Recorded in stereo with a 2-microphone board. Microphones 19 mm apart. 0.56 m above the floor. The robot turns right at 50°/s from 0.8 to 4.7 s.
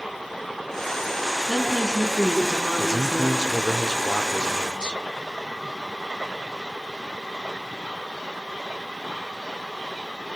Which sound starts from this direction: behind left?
A woman speaking, at 1.5 s.